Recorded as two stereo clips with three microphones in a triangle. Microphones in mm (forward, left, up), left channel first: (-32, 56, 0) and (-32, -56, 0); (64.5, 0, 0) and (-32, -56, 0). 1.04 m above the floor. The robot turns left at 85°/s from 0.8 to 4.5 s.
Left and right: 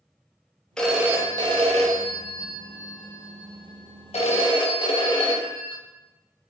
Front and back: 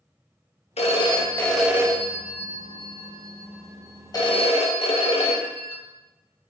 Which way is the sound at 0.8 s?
5° left.